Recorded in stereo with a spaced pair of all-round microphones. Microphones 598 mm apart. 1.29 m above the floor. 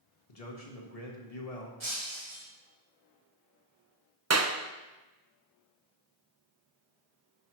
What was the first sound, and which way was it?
A man speaking, 75° left (ahead or behind).